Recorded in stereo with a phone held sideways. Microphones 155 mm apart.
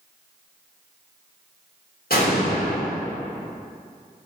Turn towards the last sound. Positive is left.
turn(degrees=75)  # may be behind; listen again after turning